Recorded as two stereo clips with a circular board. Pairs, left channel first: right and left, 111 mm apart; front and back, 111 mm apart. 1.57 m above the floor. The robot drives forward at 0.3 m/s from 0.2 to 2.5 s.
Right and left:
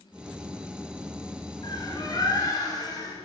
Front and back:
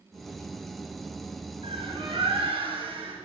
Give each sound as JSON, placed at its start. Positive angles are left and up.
{"t": 1.6, "sound": "a bird", "azimuth_deg": -140, "distance_m": 7.0}